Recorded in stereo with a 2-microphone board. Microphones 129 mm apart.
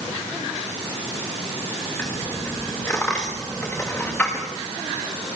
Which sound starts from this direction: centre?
A dropped coin, at 2.0 s.